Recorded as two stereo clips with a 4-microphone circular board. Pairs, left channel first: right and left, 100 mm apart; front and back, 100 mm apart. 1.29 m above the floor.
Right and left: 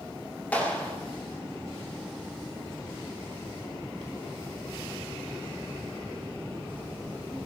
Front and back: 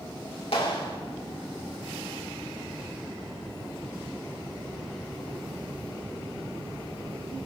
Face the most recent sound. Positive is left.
turn(degrees=-15)